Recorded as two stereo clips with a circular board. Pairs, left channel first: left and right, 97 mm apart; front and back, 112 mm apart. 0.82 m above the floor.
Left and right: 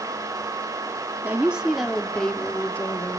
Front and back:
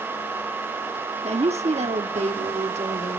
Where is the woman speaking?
165° right, 1.4 m; by 3.2 s 160° left, 2.5 m.